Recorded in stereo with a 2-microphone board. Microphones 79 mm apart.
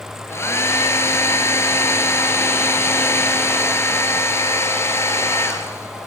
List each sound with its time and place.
0.3 s a hair dryer: 35° left (ahead or behind), 3.5 m